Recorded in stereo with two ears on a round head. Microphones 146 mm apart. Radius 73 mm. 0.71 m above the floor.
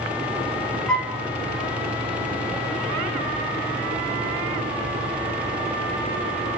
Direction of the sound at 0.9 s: 5° left (ahead or behind).